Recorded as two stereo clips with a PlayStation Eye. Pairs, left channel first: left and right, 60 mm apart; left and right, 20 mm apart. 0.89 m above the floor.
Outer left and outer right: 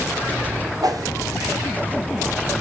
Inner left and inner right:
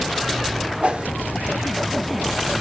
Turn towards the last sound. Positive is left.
turn(degrees=-80)